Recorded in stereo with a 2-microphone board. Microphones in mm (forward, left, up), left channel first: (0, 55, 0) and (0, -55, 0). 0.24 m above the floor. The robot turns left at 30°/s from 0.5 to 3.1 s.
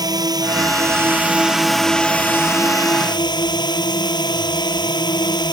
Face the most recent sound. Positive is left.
turn(degrees=140)